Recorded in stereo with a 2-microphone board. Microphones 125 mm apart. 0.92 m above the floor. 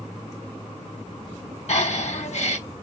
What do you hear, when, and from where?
1.7 s breathing: 60° left (ahead or behind), 0.9 m